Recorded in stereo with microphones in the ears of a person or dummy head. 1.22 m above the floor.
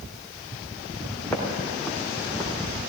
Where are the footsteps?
15° left (ahead or behind), 4 m; by 2.5 s 5° right (ahead or behind), 3.5 m.